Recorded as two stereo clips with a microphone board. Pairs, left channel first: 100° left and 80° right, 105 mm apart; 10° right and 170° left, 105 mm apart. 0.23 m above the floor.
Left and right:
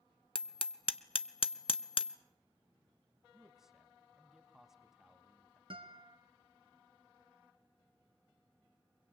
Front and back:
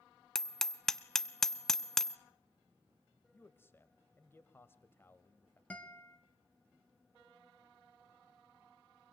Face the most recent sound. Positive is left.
turn(degrees=-85)